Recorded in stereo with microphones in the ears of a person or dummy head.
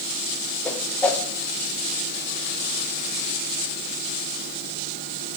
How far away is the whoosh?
About 0.6 m.